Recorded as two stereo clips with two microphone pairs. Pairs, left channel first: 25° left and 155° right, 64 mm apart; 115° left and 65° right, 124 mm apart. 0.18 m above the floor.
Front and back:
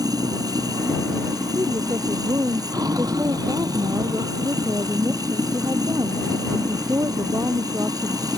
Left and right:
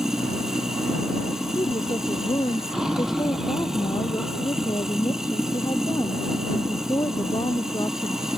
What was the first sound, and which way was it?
Running water, 150° right.